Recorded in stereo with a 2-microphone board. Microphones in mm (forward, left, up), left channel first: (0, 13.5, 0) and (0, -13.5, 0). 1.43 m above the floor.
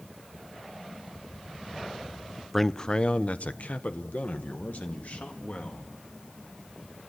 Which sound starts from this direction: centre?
A man speaking, at 2.5 s.